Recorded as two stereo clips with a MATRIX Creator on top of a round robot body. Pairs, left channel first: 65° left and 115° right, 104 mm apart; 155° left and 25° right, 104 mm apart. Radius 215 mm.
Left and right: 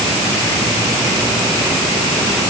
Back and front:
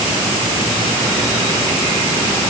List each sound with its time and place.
Only background noise.